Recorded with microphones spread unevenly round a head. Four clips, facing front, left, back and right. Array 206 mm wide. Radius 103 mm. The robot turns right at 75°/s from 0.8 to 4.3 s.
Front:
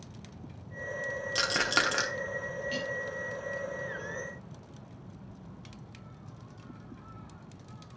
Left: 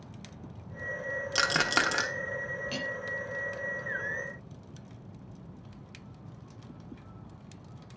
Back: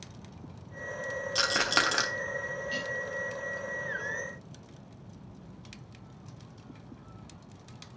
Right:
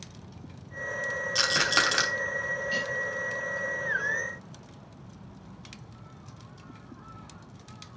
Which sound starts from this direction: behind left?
A rattle, at 1.4 s.